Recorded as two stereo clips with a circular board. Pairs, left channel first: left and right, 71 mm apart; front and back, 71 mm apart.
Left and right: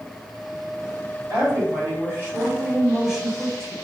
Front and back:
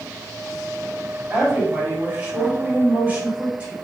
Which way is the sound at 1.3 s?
110° right.